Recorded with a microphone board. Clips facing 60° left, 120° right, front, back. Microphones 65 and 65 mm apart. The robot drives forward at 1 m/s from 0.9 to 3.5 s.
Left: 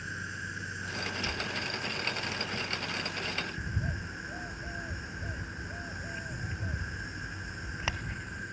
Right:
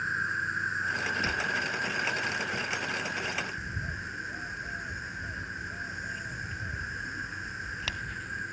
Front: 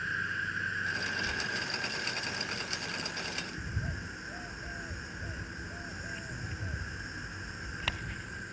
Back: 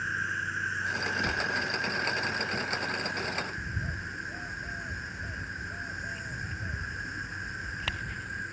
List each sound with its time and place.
0.0 s an insect: 105° right, 2.5 m; by 8.5 s 150° right, 3.5 m
1.2 s a cupboard door: 165° right, 1.5 m; by 1.5 s 170° right, 1.8 m
3.6 s a bird: 90° left, 0.7 m